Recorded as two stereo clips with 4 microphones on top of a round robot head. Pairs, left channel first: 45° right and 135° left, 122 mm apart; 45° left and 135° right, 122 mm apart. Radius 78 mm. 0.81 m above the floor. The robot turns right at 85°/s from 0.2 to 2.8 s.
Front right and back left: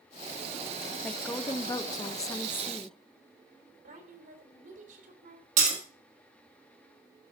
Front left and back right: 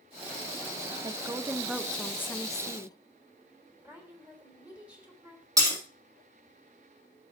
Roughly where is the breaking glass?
Behind.